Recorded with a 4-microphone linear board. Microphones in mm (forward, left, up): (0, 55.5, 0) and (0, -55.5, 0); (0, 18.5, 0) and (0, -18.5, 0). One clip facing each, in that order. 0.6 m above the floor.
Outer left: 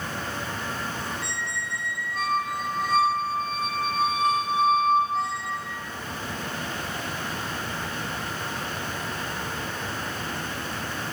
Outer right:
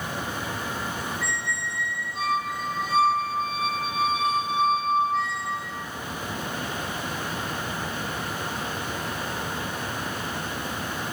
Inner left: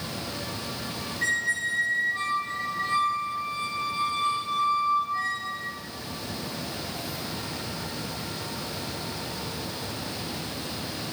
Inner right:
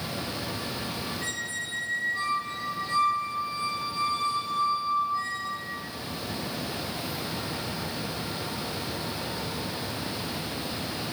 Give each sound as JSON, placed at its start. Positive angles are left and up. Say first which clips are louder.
{"t": 1.2, "sound": "a squeak", "louder": "outer right 2 dB, inner left 7 dB", "side_deg": 45, "distance_m": 1.9}